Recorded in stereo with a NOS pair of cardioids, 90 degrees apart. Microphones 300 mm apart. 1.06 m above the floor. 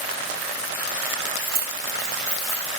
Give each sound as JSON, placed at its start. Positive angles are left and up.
{"t": 1.4, "sound": "keys jangling", "azimuth_deg": -40, "distance_m": 0.6}